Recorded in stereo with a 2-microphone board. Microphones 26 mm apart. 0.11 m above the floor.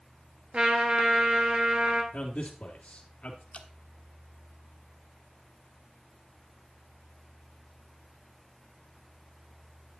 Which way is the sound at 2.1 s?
50° left (ahead or behind).